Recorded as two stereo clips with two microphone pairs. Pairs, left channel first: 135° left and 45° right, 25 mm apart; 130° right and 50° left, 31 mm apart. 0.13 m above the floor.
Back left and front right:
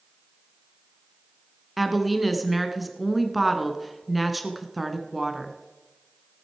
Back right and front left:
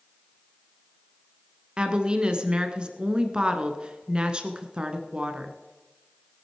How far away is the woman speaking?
About 1.3 m.